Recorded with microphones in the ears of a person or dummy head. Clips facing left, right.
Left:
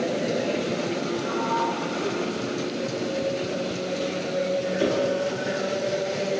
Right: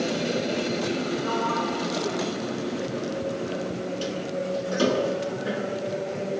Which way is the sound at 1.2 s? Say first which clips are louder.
Left 1 dB; 75° right (ahead or behind).